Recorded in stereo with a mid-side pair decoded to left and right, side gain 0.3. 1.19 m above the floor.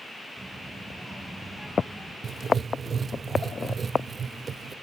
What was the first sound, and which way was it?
A child speaking, 35° right.